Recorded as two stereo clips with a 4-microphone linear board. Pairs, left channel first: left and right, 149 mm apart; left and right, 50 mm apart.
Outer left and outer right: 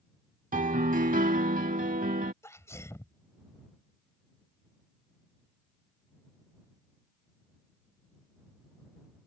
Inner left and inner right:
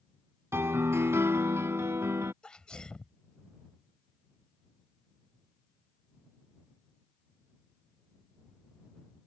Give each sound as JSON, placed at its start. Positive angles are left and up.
{"t": 0.5, "sound": "a piano", "side_deg": -65}
{"t": 2.4, "sound": "a sneeze", "side_deg": 20}